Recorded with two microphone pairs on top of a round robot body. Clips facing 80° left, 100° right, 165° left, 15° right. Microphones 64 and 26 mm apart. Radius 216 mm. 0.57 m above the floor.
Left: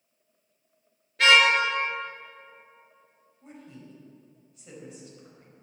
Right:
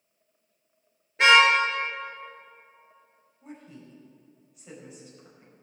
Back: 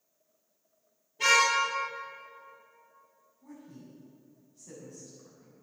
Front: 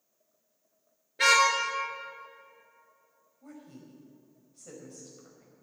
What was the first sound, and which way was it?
A car horn, 35° right.